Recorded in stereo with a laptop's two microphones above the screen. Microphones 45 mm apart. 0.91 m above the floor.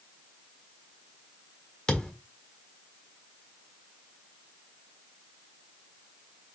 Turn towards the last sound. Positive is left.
turn(degrees=15)  # may be behind; listen again after turning